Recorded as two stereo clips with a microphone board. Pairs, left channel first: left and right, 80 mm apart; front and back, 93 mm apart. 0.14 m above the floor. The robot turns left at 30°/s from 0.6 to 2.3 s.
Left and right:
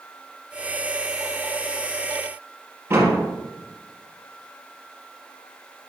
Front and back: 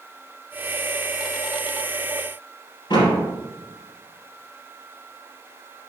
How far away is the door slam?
About 3 m.